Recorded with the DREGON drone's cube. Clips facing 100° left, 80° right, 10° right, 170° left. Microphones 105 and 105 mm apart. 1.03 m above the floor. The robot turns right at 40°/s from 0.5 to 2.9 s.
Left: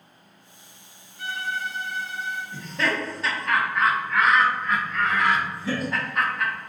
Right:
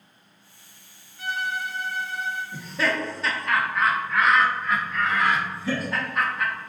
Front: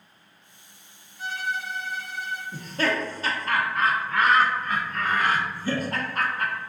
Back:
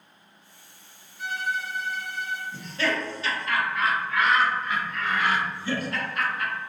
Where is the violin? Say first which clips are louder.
Right 1 dB, back 1 dB; 20° right, 1.5 m; by 2.4 s 30° left, 1.5 m.